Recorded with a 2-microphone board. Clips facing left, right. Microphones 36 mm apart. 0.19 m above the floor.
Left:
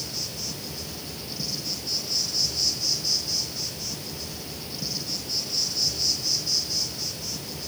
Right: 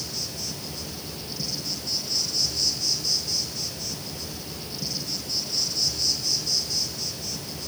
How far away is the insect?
About 3 m.